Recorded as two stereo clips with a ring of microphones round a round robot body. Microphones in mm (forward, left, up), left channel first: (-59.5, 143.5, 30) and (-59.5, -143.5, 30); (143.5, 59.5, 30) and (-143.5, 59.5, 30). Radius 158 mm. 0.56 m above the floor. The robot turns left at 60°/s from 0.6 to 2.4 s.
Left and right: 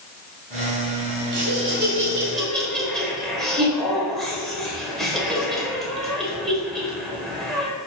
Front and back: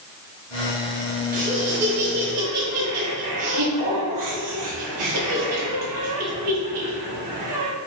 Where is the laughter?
115° right, 2.0 m; by 7.7 s straight behind, 2.0 m.